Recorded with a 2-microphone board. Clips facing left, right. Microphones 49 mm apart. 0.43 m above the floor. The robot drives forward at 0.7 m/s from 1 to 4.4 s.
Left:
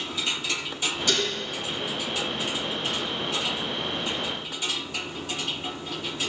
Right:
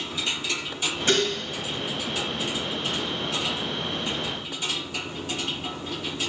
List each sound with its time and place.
1.1 s dishes clattering: 30° right (ahead or behind), 1.9 m; by 1.3 s 35° right (ahead or behind), 1.7 m